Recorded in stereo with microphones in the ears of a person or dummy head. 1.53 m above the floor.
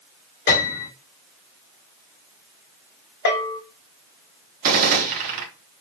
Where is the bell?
60° left (ahead or behind), 0.9 m.